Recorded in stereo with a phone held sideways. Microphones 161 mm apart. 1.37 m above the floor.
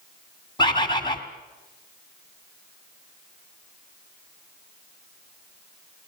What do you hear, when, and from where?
0.6 s a bird: 30° left (ahead or behind), 2 m